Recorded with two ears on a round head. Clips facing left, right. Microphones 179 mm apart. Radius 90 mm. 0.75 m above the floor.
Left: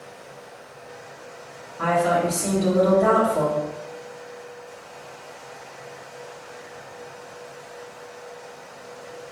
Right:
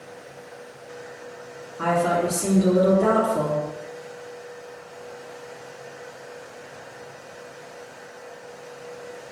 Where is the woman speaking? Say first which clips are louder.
Left 1 dB; 25° right (ahead or behind), 1.3 m.